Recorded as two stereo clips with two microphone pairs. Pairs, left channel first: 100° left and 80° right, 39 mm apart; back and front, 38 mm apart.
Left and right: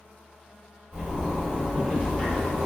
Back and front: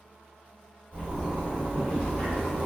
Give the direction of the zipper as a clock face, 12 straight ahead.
7 o'clock.